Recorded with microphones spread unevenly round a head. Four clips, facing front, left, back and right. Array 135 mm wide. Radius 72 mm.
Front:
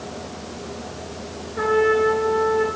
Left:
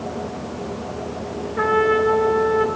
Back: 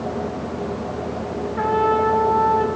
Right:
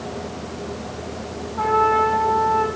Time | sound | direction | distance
1.6 | a trumpet | 75° left | 2.5 m